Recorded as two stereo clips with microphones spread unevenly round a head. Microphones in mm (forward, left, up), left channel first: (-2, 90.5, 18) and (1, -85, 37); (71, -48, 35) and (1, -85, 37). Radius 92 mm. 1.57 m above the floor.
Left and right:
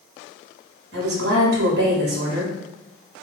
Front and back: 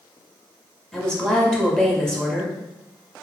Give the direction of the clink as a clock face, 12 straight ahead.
No clink in this recording.